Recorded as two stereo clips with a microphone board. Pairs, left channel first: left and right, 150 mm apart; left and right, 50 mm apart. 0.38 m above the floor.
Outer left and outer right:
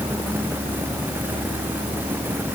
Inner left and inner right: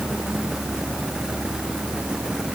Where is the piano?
I don't hear a piano.